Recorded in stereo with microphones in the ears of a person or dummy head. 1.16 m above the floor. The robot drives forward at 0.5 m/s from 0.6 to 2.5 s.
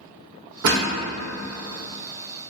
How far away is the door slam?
About 0.8 m.